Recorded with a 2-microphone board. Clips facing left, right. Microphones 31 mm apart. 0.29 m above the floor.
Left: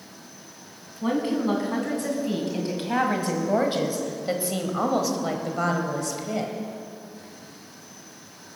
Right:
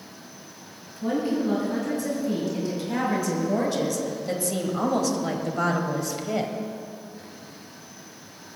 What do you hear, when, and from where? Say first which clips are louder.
1.0 s a woman speaking: left 1 dB; 60° left (ahead or behind), 3 m; by 6.5 s 15° right (ahead or behind), 1.7 m